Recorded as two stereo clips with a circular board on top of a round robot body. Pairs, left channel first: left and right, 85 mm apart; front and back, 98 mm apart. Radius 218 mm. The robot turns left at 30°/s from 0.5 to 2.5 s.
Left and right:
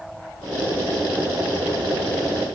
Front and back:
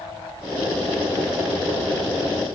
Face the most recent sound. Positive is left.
No sound to turn to.